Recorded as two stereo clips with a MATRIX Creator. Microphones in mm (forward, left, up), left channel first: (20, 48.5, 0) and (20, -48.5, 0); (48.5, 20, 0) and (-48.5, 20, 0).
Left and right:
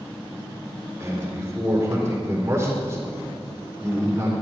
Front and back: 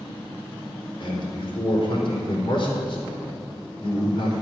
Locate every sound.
1.0 s a man speaking: 25° right, 4 m